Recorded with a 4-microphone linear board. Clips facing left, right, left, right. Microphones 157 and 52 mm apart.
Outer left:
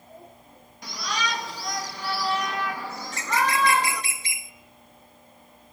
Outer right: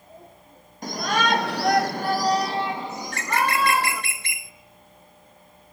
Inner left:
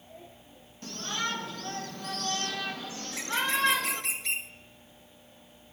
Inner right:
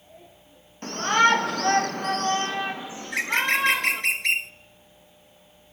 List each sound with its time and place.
0.8 s a shout: 45° right (ahead or behind), 1.4 m; by 4.0 s 5° right (ahead or behind), 2.5 m
3.0 s a bird: 60° right (ahead or behind), 0.7 m